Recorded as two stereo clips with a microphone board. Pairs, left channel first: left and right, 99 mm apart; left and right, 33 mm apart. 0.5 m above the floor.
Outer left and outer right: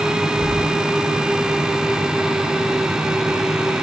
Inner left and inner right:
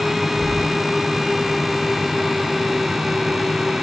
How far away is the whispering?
About 4 m.